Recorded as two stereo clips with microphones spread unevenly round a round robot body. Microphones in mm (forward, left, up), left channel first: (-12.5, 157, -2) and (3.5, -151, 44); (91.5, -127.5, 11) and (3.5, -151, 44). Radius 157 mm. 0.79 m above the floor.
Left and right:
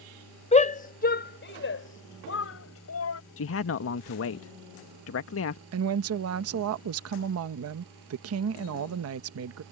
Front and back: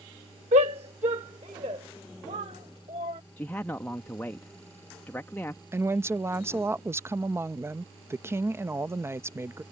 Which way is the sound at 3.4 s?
70° left.